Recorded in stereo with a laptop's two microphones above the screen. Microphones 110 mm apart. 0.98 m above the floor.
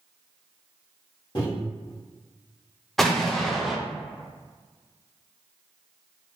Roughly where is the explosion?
Centre.